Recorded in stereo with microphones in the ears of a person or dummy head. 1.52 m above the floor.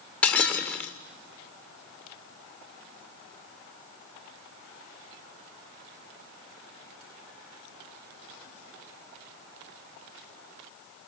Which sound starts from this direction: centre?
Breaking glass, at 0.2 s.